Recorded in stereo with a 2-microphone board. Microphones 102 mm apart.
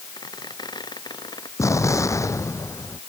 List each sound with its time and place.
0.2 s a squeak: 45° left (ahead or behind)
1.6 s an explosion: 30° left (ahead or behind)